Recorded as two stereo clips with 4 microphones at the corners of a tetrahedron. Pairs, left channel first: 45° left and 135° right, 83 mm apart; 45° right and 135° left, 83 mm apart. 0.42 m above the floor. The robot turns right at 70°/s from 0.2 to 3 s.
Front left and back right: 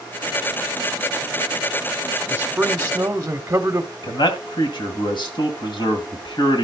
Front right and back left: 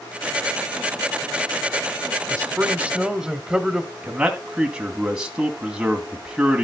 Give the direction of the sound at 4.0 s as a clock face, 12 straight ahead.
10 o'clock.